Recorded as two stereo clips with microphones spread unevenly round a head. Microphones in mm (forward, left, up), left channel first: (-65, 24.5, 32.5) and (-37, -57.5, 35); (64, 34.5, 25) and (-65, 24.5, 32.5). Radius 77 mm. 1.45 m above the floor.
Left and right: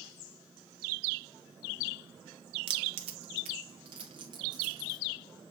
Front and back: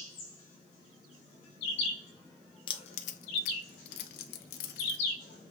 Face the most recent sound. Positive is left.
turn(degrees=-5)